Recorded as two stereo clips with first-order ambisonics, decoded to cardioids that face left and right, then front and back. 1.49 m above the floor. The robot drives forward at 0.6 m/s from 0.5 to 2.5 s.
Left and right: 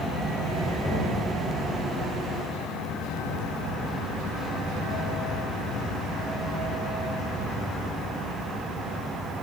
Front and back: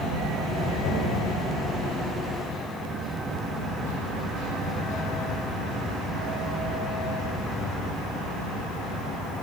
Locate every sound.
0.8 s knocking: 20° left, 7.5 m